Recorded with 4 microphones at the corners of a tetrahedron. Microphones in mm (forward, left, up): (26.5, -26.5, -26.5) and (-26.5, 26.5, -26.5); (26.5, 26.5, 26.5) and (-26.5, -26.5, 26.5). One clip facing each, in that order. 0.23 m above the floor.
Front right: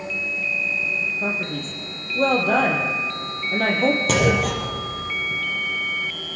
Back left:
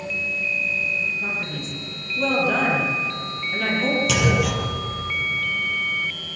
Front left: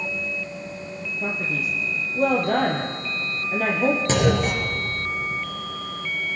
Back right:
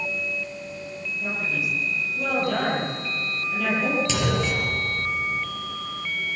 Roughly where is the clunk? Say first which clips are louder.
Front right 2 dB, front left 4 dB; ahead.